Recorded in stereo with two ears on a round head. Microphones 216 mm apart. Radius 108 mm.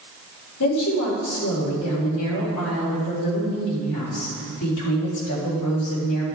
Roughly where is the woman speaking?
Left.